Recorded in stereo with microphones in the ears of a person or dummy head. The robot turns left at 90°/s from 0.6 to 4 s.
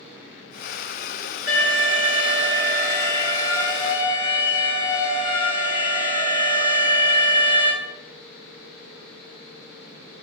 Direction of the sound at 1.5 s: 15° right (ahead or behind).